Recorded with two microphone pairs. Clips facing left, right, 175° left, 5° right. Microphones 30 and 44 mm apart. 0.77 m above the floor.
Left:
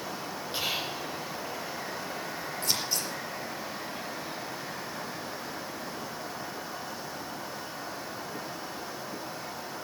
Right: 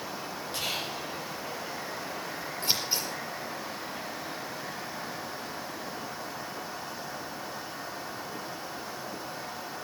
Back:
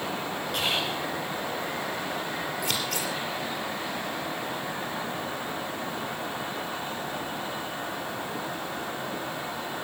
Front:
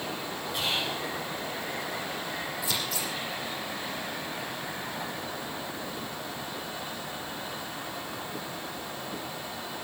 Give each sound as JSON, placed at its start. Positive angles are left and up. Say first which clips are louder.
{"t": 0.5, "sound": "whispering", "louder": "left 2 dB, back 2 dB", "azimuth_deg": 160, "distance_m": 3.5}
{"t": 2.6, "sound": "scissors", "louder": "right 2 dB, back 2 dB", "azimuth_deg": -160, "distance_m": 4.5}